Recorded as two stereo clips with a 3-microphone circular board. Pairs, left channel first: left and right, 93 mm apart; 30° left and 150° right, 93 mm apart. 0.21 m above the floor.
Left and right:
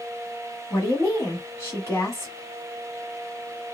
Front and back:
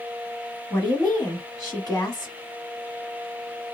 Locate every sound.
0.7 s a woman speaking: 45° left, 1.3 m